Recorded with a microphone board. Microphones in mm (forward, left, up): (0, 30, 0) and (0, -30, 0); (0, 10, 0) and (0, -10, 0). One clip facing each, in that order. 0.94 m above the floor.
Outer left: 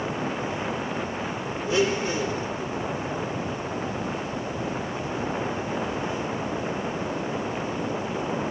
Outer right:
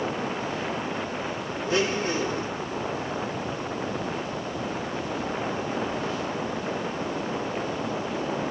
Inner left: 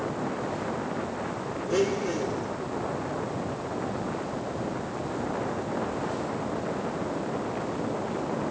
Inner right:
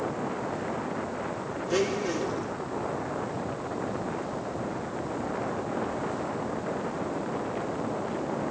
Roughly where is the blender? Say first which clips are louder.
Outer left 2 dB, inner left 1 dB; right.